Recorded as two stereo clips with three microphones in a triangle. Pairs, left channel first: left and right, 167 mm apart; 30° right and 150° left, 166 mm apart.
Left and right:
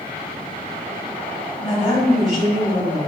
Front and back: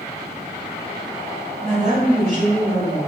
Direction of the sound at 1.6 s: 135° left.